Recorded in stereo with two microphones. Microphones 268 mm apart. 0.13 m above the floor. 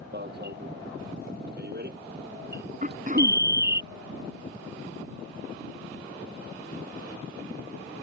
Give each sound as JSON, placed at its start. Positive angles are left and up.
{"t": 0.1, "sound": "an alarm", "side_deg": -40}
{"t": 2.8, "sound": "throat clearing", "side_deg": -30}